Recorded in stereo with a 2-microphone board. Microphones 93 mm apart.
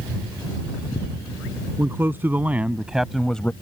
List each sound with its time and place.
1.8 s a man speaking: 25° right (ahead or behind); by 3.5 s 15° left (ahead or behind)